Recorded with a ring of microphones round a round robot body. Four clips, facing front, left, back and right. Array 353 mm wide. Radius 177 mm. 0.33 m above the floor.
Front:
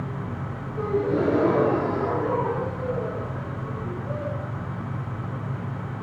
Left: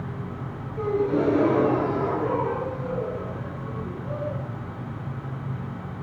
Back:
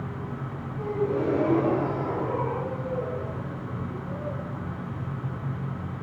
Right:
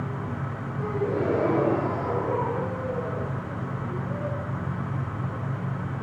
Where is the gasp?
40° left, 4.5 m.